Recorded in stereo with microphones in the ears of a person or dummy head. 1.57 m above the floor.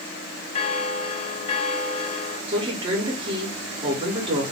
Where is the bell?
35° left (ahead or behind), 0.5 m.